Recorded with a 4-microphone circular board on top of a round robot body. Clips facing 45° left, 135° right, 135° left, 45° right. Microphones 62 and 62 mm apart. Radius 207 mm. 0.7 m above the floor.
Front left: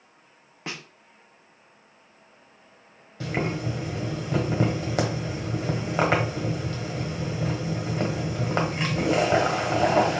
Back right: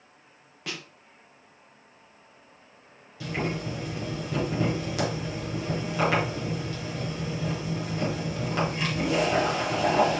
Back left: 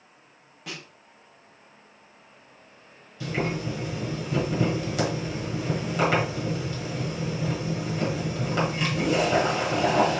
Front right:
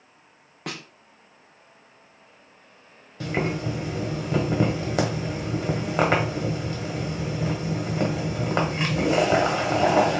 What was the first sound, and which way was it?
A snare drum, 15° right.